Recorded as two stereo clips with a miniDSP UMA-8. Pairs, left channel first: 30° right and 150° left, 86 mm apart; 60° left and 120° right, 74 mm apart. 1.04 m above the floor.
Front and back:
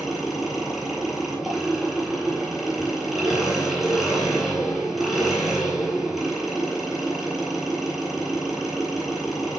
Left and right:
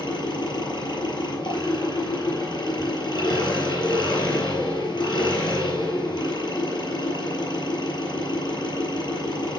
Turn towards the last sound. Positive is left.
turn(degrees=65)